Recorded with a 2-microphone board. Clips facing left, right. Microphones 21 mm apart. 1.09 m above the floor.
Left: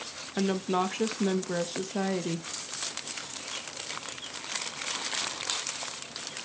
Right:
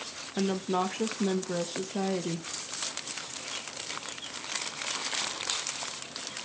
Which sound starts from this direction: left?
A woman speaking, at 0.4 s.